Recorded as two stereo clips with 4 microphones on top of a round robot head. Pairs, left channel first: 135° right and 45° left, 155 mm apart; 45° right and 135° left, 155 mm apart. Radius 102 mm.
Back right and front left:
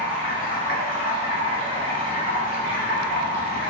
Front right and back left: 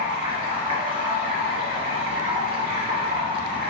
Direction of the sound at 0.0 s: 170° right.